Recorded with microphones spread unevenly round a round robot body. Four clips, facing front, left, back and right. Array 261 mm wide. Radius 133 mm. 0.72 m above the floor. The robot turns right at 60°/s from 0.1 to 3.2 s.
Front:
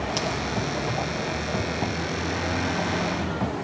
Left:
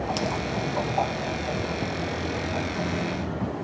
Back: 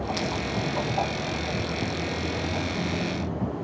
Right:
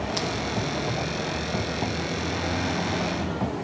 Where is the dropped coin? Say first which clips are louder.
Left 1 dB, front 1 dB; 50° left, 3 m; by 0.4 s 65° left, 3 m.